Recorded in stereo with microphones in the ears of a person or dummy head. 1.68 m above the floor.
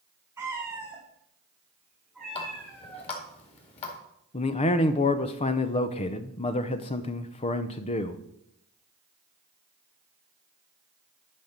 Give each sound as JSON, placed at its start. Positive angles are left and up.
{"t": 0.4, "sound": "a cat meowing", "side_deg": -15, "distance_m": 2.0}
{"t": 2.4, "sound": "a running tap", "side_deg": 30, "distance_m": 2.0}
{"t": 4.3, "sound": "a man speaking", "side_deg": 30, "distance_m": 0.7}